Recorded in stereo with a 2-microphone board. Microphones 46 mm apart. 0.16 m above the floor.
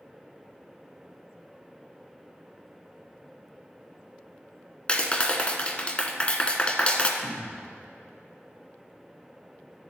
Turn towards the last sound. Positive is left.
turn(degrees=65)  # may be behind; listen again after turning